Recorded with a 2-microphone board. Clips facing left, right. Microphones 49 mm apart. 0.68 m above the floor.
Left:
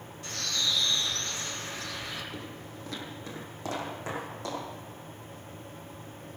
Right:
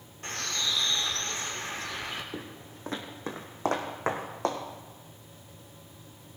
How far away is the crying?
I don't hear crying.